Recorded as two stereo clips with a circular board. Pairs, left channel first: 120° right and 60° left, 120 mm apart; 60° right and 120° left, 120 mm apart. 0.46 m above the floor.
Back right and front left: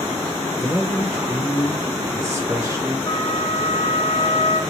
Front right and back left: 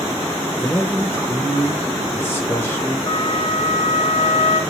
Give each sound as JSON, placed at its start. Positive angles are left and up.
{"t": 0.6, "sound": "a man speaking", "azimuth_deg": 5, "distance_m": 1.2}
{"t": 3.1, "sound": "a flute", "azimuth_deg": -80, "distance_m": 1.1}